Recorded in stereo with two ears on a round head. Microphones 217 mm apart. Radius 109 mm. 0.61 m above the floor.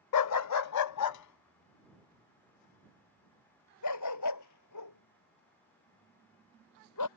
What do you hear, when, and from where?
0.1 s a dog barking: 70° left (ahead or behind); by 7.1 s 80° left